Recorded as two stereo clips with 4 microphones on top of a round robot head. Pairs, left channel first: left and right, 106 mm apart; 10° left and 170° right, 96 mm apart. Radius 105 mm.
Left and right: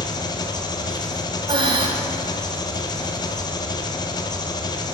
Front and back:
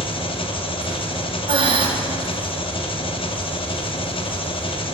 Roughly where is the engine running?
Ahead left.